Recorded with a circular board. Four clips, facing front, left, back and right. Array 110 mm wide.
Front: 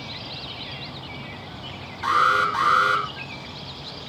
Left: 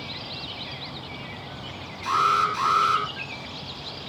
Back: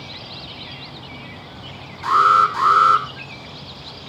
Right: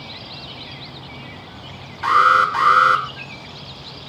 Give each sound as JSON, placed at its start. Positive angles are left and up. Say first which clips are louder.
{"t": 2.0, "sound": "an alarm", "louder": "right 8 dB, back 5 dB", "azimuth_deg": -80, "distance_m": 8.5}